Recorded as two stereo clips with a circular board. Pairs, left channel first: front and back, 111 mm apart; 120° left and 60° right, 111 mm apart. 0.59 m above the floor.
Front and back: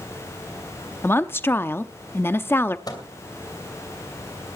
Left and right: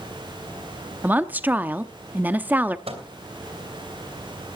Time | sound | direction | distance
1.0 | a woman speaking | 20° right | 0.6 m
2.9 | a microwave | 50° right | 2.5 m